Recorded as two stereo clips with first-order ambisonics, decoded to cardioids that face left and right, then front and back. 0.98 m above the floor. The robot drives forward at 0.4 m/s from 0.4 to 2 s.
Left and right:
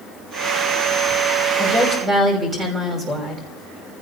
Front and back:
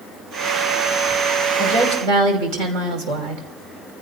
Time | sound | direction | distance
1.6 | a woman speaking | 155° right | 5 m